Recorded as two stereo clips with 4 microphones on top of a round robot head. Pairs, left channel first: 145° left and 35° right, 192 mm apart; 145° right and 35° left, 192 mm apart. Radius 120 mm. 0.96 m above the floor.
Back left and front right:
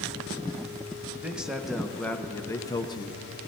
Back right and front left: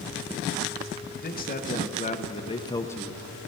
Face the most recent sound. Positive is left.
turn(degrees=130)